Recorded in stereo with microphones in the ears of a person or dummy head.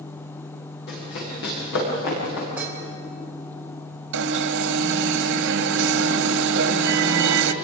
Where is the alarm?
70° right (ahead or behind), 1.6 m.